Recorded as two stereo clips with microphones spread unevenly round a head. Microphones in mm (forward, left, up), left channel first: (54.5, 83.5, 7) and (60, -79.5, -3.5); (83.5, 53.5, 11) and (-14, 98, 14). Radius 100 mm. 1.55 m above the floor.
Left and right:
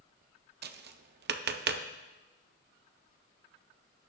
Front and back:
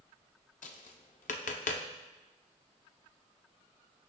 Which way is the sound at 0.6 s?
60° right.